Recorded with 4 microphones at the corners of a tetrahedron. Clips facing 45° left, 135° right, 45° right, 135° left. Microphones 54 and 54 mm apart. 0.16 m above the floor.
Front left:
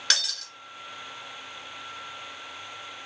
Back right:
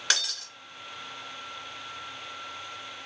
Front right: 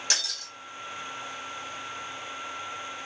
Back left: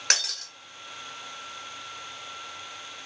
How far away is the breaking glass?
About 1.4 m.